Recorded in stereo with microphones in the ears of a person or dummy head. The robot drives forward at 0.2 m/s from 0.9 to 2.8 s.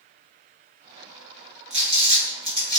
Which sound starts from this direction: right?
Crumpling, at 1.7 s.